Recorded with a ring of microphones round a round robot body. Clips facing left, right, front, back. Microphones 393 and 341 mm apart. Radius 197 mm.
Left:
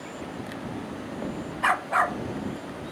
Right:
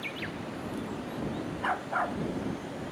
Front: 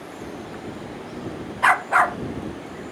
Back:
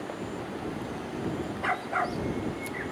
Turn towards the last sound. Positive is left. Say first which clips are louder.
# left 4 dB, front 6 dB
turn(degrees=30)